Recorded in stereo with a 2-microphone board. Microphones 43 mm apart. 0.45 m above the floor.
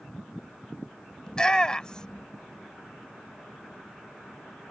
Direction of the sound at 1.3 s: 20° left (ahead or behind).